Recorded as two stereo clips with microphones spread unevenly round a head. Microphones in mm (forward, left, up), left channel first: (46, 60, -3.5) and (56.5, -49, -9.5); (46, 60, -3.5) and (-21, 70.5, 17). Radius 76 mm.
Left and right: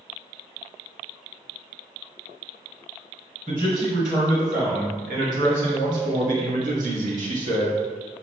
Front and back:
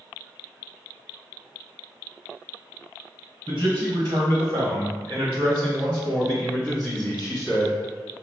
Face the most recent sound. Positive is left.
turn(degrees=-80)